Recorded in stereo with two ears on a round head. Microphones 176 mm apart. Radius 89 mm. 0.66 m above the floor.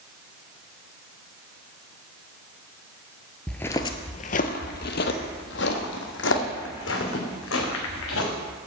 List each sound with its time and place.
3.5 s footsteps: 5° left (ahead or behind), 0.6 m; by 8.3 s 75° left (ahead or behind), 3 m